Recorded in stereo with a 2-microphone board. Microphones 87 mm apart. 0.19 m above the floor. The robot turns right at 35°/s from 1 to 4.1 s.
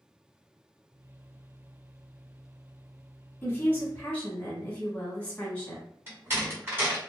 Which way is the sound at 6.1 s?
30° right (ahead or behind).